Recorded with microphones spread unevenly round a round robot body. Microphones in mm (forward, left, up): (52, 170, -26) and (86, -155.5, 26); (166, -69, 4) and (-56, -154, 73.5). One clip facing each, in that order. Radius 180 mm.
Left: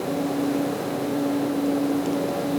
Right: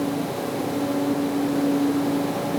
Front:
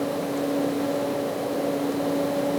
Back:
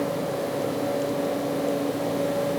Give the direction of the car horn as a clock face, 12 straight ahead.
I don't hear a car horn.